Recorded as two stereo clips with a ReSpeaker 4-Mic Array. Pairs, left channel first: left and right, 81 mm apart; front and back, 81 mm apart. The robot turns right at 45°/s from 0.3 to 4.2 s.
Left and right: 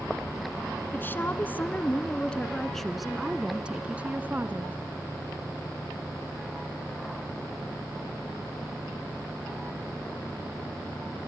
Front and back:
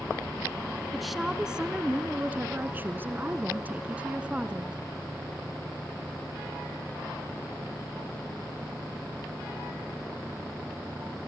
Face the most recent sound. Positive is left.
turn(degrees=-125)